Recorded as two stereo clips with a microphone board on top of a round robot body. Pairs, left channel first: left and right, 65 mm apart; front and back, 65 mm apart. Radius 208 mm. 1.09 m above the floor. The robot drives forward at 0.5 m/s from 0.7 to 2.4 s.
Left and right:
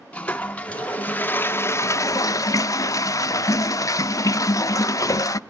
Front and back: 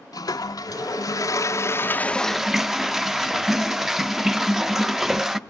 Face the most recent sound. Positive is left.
turn(degrees=95)